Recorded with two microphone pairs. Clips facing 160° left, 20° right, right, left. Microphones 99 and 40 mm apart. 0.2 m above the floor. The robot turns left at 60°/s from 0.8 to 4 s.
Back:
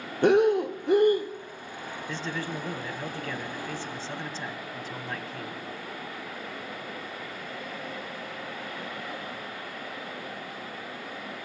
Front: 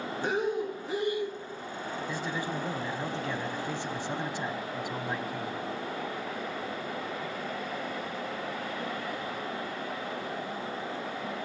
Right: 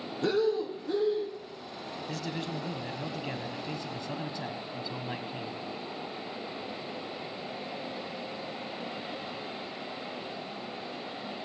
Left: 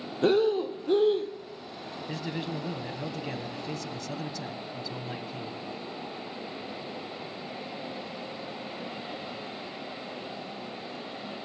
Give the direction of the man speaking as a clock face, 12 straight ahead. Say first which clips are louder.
Back 1 dB, left 2 dB; 10 o'clock.